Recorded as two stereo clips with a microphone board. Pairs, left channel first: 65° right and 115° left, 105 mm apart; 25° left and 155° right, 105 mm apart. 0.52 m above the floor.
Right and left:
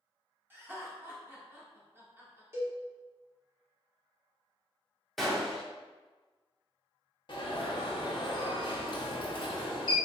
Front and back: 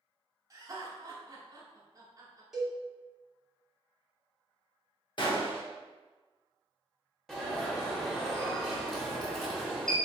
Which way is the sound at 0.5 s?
170° left.